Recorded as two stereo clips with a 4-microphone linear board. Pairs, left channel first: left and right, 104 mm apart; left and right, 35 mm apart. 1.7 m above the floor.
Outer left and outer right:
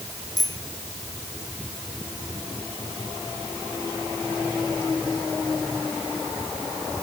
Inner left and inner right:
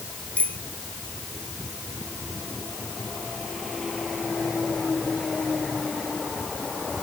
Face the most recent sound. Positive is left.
turn(degrees=40)  # may be behind; listen again after turning